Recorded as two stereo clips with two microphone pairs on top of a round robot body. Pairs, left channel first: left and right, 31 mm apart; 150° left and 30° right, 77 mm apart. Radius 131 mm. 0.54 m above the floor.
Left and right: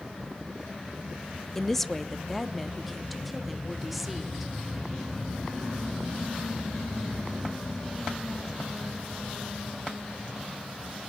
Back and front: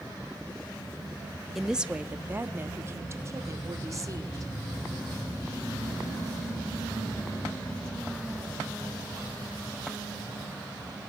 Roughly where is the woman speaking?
Ahead left.